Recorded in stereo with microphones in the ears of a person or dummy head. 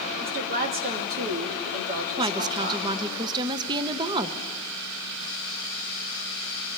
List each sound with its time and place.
0.2 s a woman speaking: 45° right (ahead or behind), 1.7 m
2.2 s a woman speaking: 25° right (ahead or behind), 0.6 m